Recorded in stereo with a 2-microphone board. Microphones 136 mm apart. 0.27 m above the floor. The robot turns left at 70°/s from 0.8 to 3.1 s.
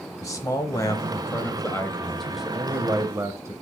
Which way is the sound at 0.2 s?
25° left (ahead or behind).